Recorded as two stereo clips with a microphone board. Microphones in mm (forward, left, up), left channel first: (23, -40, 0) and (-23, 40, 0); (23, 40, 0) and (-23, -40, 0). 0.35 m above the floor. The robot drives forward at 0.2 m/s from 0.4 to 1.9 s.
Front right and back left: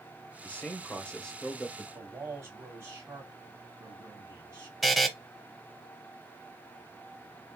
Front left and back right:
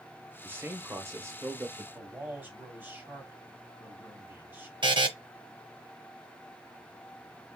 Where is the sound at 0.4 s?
105° right, 0.8 m; by 1.8 s 140° right, 0.9 m.